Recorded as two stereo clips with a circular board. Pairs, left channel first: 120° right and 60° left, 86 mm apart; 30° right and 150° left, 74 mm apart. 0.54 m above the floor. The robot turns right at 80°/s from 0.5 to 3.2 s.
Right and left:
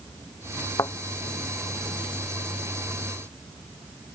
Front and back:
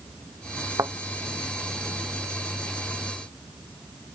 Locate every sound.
0.8 s a thud: 170° right; by 0.9 s 160° right